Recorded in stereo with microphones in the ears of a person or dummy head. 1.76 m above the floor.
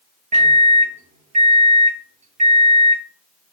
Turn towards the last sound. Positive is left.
turn(degrees=-35)  # may be behind; listen again after turning